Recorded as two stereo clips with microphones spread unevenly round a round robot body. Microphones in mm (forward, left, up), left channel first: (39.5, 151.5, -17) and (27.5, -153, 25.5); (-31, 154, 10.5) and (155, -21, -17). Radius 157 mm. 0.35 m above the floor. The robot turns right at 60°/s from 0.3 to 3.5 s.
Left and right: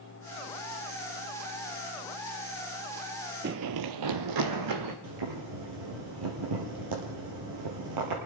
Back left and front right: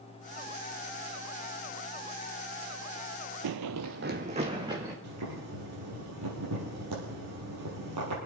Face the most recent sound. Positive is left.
turn(degrees=-85)